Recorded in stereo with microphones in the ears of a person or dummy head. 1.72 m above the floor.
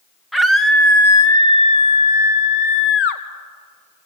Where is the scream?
Centre (ahead or behind), 1.5 m; by 3.2 s 65° left (ahead or behind), 1.4 m.